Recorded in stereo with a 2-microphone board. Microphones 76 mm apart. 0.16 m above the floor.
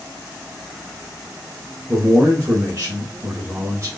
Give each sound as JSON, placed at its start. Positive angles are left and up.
{"t": 1.9, "sound": "a man speaking", "side_deg": -35, "distance_m": 1.7}